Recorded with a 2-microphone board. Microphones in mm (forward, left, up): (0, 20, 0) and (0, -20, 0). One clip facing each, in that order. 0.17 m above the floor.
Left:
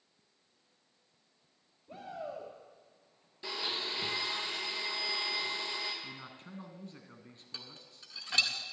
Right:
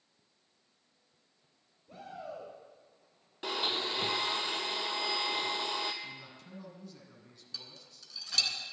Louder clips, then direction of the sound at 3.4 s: Right 4 dB; 65° right (ahead or behind).